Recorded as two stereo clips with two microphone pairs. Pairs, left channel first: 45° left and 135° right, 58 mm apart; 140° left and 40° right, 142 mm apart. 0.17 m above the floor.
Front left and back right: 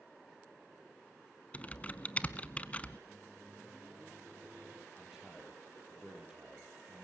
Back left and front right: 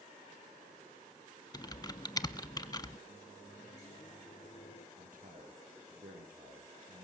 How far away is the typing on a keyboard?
About 0.7 m.